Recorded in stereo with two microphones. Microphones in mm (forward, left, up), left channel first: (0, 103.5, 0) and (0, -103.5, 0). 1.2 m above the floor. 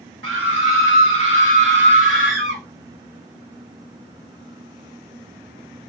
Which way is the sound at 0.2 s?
75° right (ahead or behind).